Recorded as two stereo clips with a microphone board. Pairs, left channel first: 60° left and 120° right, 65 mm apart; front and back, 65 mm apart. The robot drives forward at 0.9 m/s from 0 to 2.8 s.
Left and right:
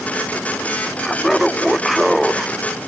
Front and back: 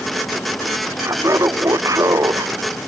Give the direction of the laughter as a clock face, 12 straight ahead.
7 o'clock.